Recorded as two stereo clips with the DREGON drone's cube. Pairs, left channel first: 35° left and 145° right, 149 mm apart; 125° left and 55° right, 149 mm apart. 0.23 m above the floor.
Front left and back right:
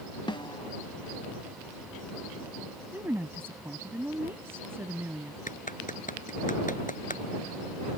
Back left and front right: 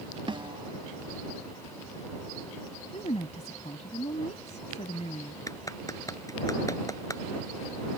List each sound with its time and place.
0.3 s a snare drum: 10° right
2.9 s a woman speaking: 145° left
5.5 s a clap: 55° left